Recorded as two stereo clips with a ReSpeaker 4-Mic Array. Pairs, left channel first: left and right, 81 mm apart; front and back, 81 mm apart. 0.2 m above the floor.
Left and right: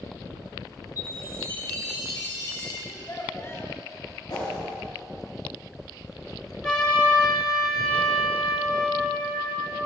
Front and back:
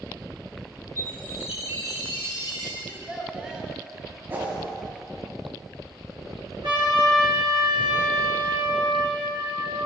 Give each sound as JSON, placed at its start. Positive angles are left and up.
{"t": 1.0, "sound": "a chime", "azimuth_deg": 135, "distance_m": 3.5}
{"t": 2.9, "sound": "a child speaking", "azimuth_deg": 110, "distance_m": 1.3}
{"t": 4.3, "sound": "a whoosh", "azimuth_deg": 120, "distance_m": 3.5}
{"t": 6.6, "sound": "a trumpet", "azimuth_deg": 170, "distance_m": 3.5}